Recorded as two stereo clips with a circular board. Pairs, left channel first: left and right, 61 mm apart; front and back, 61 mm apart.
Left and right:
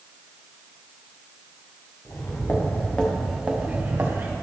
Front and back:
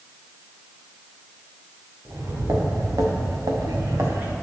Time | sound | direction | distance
2.0 | footsteps | 140° left | 3 m